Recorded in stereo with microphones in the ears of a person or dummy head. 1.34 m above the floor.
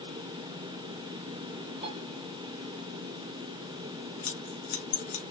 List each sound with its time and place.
1.8 s a piano: 30° right (ahead or behind), 1.4 m
4.2 s scissors: 50° left (ahead or behind), 1.9 m